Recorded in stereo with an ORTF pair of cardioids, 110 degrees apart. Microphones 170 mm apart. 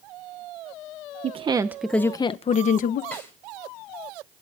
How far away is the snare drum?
About 8 m.